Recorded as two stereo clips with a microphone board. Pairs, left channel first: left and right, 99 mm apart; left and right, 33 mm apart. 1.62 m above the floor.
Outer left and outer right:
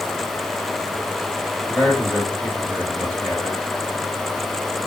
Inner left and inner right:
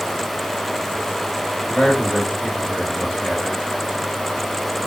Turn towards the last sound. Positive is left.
turn(degrees=15)  # may be behind; listen again after turning